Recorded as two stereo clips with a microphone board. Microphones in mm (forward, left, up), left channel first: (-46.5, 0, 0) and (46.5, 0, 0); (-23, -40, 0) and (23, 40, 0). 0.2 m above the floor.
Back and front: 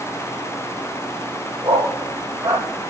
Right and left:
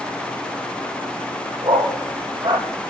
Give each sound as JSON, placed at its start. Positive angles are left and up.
{"t": 1.6, "sound": "a dog barking", "azimuth_deg": 30, "distance_m": 3.0}